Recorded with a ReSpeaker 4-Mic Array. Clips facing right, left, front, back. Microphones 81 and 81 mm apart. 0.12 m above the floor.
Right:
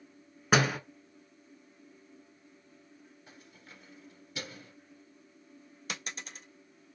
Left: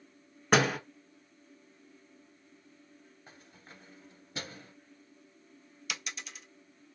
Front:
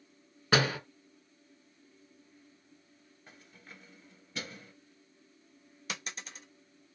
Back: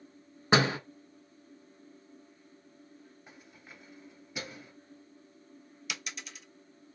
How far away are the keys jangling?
About 1.3 m.